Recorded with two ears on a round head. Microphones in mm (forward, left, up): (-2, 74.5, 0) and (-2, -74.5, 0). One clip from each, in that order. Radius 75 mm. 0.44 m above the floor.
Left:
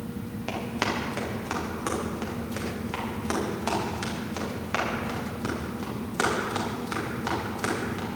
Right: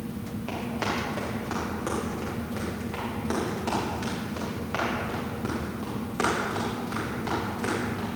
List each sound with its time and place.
0.5 s running footsteps: 40° left (ahead or behind), 6 m; by 8.1 s 35° left (ahead or behind), 11 m